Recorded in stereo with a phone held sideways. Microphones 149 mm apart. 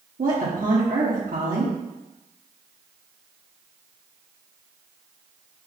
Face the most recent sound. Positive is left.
turn(degrees=-70)  # may be behind; listen again after turning